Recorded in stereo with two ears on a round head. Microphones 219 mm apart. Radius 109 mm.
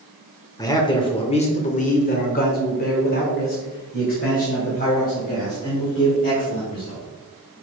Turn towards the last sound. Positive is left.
turn(degrees=35)  # may be behind; listen again after turning